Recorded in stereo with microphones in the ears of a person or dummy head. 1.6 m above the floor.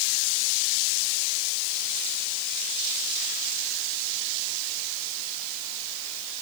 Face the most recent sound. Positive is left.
No sound to turn to.